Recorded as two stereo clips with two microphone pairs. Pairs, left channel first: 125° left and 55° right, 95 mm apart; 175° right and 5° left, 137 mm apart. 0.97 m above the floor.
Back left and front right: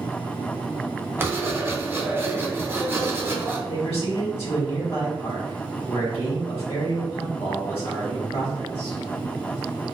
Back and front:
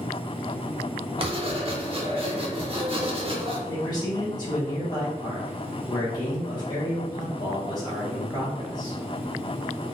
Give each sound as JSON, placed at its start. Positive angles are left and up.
{"t": 1.2, "sound": "writing", "azimuth_deg": 0, "distance_m": 0.6}
{"t": 3.7, "sound": "a man speaking", "azimuth_deg": 125, "distance_m": 1.5}